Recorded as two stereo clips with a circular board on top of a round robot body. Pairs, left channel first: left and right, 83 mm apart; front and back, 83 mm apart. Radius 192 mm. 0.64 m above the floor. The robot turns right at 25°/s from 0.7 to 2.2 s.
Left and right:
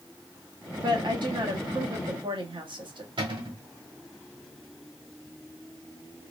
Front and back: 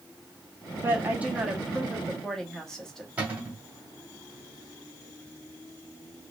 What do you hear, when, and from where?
0.8 s a woman speaking: 115° right, 1.5 m; by 3.1 s 85° right, 1.5 m
3.2 s a cupboard door: 105° right, 2.0 m